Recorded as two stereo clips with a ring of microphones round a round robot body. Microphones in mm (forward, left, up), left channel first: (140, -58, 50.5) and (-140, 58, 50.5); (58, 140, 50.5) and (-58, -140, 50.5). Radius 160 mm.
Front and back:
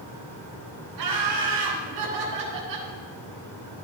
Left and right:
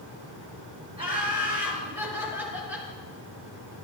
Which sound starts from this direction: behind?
Laughter, at 1.0 s.